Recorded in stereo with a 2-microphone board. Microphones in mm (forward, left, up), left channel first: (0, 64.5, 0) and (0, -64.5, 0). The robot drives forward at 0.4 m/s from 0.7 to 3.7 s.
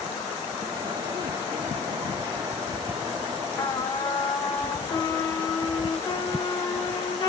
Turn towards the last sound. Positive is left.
turn(degrees=30)  # may be behind; listen again after turning